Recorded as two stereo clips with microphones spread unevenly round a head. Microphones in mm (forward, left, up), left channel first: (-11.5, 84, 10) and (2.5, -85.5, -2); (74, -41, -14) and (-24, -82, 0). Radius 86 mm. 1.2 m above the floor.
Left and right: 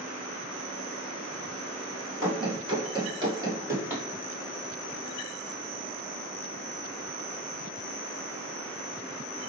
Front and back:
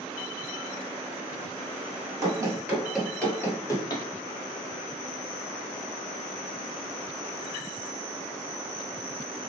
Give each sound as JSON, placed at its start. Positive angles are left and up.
{"t": 2.2, "sound": "running footsteps", "azimuth_deg": -145, "distance_m": 1.5}